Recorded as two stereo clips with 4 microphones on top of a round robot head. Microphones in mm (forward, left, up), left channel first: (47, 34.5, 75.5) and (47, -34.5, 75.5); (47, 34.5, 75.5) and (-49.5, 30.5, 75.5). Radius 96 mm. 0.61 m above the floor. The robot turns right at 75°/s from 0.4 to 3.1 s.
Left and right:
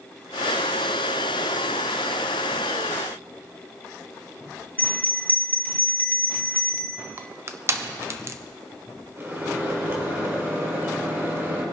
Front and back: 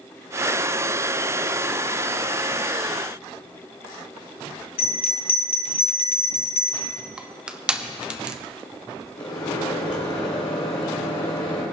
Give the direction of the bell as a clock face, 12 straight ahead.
11 o'clock.